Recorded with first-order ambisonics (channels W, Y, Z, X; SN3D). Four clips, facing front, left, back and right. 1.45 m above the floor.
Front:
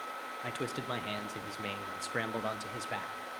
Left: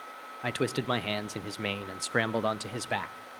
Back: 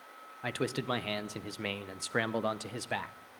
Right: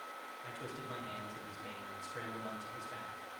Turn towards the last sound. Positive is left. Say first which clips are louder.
# left 17 dB, back 5 dB
turn(degrees=105)